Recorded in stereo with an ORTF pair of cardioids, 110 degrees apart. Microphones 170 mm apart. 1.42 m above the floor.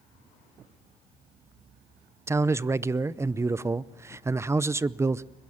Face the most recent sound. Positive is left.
turn(degrees=-15)